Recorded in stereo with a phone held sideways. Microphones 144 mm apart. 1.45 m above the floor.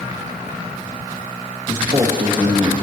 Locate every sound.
1.7 s a man speaking: 35° right (ahead or behind), 2 m